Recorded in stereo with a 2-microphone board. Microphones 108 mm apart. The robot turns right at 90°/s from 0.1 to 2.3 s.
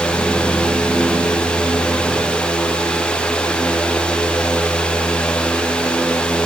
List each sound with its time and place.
Only background noise.